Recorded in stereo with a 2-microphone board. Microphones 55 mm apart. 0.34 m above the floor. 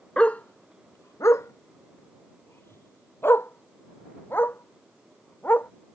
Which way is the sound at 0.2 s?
20° left (ahead or behind).